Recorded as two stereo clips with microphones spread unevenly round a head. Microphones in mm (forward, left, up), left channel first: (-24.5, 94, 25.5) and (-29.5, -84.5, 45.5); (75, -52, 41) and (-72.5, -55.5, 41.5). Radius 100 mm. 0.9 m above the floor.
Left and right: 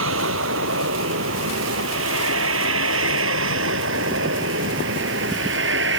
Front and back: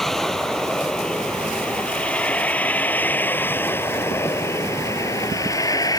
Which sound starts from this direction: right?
A vehicle, at 0.0 s.